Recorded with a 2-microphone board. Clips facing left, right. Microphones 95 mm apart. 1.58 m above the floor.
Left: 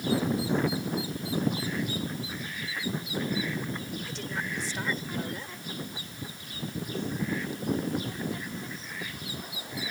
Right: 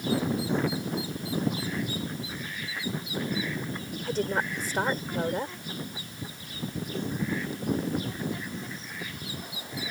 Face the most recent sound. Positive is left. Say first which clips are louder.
# right 7 dB
turn(degrees=-50)  # may be behind; listen again after turning